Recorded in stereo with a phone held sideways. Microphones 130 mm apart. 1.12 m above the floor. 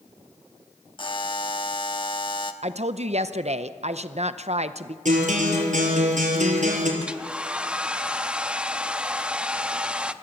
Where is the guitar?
70° right (ahead or behind), 5 m.